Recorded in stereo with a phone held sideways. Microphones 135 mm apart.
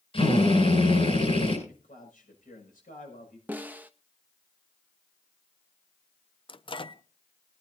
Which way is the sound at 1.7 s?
80° left.